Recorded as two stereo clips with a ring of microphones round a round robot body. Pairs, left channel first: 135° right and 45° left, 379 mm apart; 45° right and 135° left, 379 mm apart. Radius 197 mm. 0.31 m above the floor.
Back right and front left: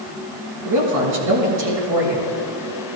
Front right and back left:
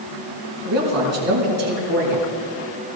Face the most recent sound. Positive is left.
turn(degrees=85)